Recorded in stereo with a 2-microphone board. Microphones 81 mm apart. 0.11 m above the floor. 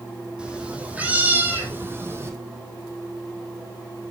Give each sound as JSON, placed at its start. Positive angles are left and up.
{"t": 0.4, "sound": "a cat meowing", "side_deg": -10, "distance_m": 3.0}